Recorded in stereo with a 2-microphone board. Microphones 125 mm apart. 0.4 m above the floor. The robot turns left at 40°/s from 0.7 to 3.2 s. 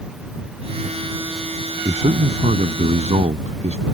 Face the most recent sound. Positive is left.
turn(degrees=-110)